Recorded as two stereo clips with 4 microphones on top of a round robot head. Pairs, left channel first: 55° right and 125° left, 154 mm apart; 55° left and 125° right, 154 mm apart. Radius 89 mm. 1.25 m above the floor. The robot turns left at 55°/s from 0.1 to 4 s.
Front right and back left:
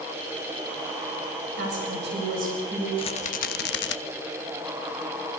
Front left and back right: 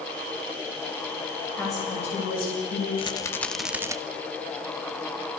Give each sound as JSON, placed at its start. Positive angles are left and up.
{"t": 1.6, "sound": "a woman speaking", "azimuth_deg": 135, "distance_m": 7.5}
{"t": 3.0, "sound": "a rattle", "azimuth_deg": 0, "distance_m": 1.0}